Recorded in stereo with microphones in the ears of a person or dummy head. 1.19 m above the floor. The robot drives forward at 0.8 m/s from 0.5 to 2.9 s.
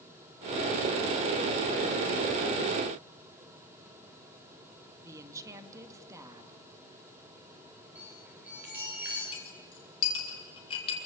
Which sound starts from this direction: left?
A clink, at 9.3 s.